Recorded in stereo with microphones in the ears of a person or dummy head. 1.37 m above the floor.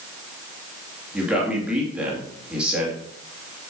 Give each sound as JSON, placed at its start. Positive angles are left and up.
{"t": 1.1, "sound": "a man speaking", "side_deg": -10, "distance_m": 2.5}